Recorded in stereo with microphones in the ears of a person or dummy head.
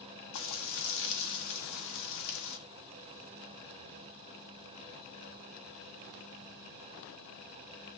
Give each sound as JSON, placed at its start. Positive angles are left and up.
{"t": 0.3, "sound": "frying", "side_deg": 70, "distance_m": 1.6}